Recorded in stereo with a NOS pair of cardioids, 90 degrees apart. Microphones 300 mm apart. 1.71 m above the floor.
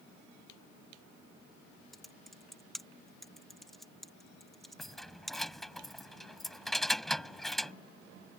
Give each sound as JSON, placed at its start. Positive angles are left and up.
{"t": 1.9, "sound": "typing on a keyboard", "azimuth_deg": 0}
{"t": 4.8, "sound": "keys jangling", "azimuth_deg": 0}